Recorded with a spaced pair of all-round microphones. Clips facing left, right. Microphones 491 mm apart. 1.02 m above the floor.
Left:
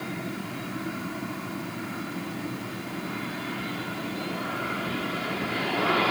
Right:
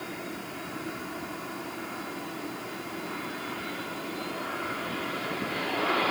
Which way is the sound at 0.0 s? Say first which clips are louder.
Left 4 dB; 40° left (ahead or behind).